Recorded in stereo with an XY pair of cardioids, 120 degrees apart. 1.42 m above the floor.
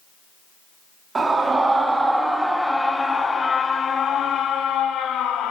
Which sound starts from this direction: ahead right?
A scream, at 1.1 s.